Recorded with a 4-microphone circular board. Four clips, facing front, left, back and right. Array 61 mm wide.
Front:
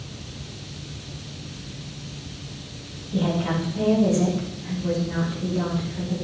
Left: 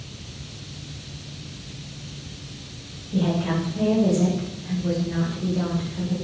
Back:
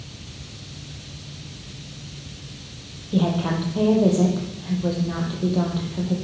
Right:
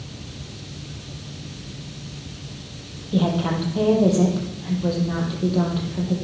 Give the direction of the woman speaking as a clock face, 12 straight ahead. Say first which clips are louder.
Right 2 dB, back 2 dB; 4 o'clock.